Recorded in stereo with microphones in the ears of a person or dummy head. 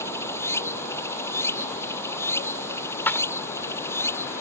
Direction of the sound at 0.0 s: 10° left (ahead or behind).